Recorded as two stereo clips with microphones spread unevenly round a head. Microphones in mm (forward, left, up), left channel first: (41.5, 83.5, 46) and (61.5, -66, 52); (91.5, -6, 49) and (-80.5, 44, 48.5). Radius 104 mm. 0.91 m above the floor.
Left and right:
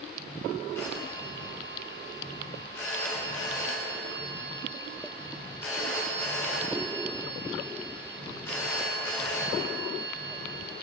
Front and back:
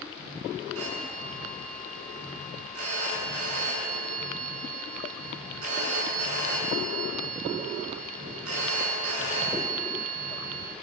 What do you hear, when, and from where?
0.8 s a phone ringing: 175° left, 8 m